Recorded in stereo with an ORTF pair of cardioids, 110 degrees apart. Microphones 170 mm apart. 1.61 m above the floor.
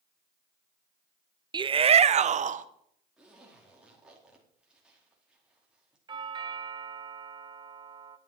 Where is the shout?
25° right, 0.7 m; by 2.6 s 45° right, 1.4 m.